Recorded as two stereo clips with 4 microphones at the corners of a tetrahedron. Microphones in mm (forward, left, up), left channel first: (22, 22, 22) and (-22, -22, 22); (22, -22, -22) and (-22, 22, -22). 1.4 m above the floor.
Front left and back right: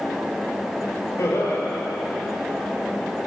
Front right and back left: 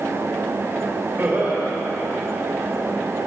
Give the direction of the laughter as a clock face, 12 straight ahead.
9 o'clock.